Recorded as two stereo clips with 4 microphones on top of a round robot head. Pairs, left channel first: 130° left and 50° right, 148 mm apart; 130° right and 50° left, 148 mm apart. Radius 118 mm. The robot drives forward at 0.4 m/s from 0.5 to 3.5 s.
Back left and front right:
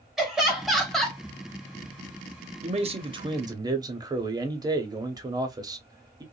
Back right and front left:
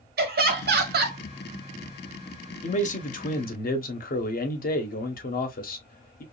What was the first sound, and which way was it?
Laughter, 40° left.